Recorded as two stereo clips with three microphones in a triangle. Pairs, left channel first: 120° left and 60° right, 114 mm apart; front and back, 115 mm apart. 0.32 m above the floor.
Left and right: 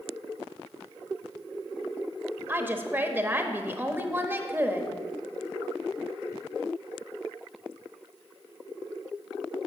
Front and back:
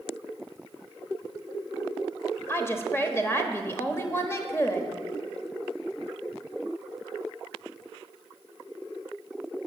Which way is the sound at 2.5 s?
20° right.